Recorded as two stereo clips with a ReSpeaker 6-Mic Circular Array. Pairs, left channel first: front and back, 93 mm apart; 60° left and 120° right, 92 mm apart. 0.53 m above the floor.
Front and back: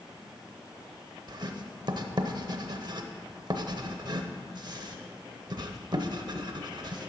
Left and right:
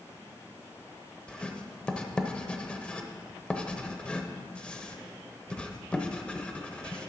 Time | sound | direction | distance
1.3 | writing | 140° left | 0.7 m